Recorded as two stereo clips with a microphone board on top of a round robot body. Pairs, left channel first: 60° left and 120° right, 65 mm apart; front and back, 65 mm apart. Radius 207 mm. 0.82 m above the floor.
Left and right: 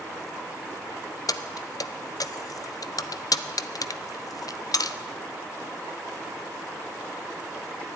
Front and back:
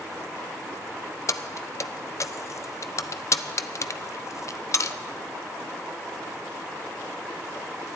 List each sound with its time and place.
1.3 s keys jangling: 40° left, 0.6 m